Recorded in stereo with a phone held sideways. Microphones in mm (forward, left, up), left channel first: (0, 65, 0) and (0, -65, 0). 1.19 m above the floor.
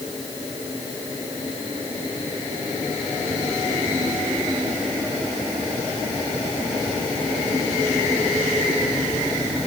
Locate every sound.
Only background noise.